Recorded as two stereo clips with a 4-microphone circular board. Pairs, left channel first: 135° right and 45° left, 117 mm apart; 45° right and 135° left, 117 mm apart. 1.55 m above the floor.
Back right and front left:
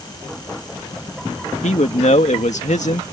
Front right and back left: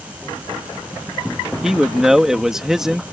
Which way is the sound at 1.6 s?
140° right.